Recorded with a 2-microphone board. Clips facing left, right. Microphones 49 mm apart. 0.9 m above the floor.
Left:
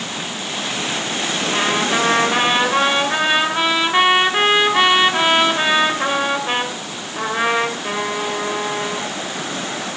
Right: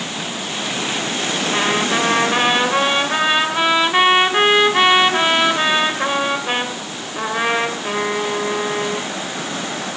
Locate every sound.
1.5 s a trumpet: 5° right (ahead or behind), 2.5 m